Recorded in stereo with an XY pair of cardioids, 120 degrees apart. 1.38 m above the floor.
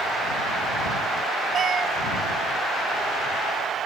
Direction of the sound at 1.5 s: 40° right.